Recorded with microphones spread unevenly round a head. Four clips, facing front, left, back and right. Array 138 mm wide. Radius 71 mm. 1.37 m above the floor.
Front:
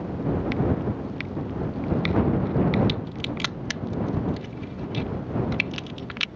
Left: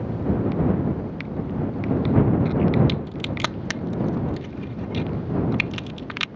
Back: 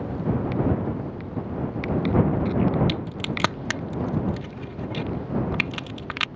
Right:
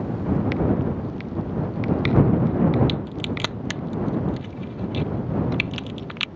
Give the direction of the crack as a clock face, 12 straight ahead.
6 o'clock.